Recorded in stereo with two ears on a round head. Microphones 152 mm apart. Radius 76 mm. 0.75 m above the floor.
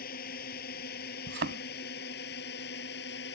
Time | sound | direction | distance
0.0 | a drone | 60° left (ahead or behind) | ?
1.3 | a thud | 75° right (ahead or behind) | ?